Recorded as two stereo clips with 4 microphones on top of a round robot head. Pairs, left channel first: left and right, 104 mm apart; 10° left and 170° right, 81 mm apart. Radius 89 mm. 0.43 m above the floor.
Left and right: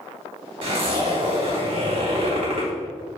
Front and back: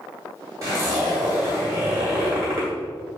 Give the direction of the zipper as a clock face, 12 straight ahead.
4 o'clock.